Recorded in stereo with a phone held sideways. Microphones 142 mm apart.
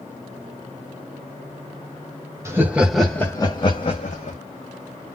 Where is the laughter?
20° right (ahead or behind), 0.8 m; by 4.4 s 60° left (ahead or behind), 1.0 m.